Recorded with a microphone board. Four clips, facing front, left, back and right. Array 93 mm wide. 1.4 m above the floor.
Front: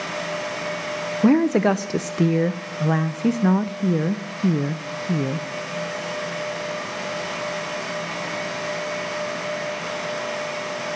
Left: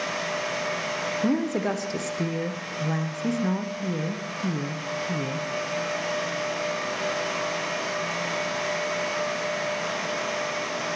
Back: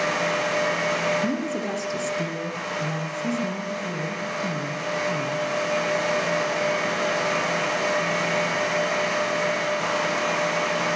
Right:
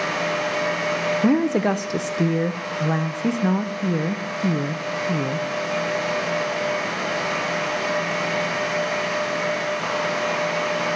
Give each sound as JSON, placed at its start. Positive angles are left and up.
{"t": 1.2, "sound": "a woman speaking", "azimuth_deg": -25, "distance_m": 0.6}